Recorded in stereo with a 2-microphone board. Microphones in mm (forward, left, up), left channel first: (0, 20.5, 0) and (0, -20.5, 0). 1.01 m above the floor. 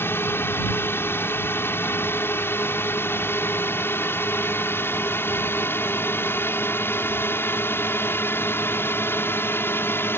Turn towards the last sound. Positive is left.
turn(degrees=60)  # may be behind; listen again after turning